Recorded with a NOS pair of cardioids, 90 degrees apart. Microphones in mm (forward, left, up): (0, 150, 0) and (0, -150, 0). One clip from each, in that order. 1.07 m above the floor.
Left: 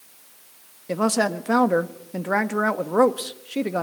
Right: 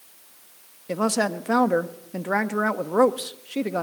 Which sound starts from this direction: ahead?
A woman speaking, at 0.9 s.